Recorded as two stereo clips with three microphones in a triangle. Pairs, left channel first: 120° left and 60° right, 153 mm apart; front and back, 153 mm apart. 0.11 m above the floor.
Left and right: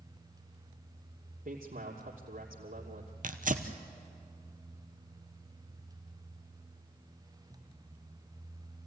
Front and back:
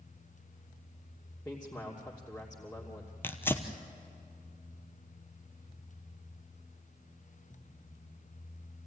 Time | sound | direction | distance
1.4 | a man speaking | 75° right | 2.5 m
3.2 | tearing paper | 75° right | 1.3 m